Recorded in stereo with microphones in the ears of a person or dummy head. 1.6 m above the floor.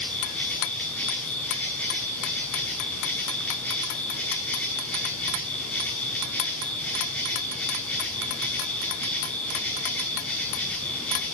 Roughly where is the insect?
Centre.